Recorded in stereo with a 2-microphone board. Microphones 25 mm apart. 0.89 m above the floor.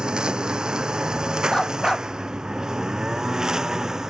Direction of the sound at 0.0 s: 40° right (ahead or behind).